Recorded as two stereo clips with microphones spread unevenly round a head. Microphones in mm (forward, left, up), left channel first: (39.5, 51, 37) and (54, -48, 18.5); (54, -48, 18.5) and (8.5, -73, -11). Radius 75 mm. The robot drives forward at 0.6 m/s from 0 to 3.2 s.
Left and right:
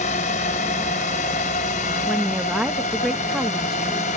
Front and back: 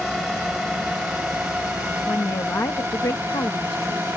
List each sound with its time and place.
0.0 s a drone: 115° left; by 4.2 s 130° left
2.1 s a woman speaking: straight ahead; by 4.2 s 5° left